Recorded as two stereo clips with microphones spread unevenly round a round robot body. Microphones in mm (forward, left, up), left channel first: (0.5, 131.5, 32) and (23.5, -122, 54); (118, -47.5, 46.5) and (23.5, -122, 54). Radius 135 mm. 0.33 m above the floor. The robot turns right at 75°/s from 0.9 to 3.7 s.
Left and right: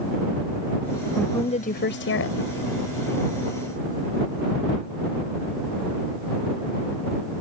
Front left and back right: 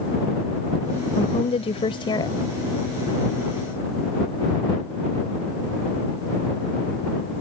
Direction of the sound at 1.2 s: 10° left.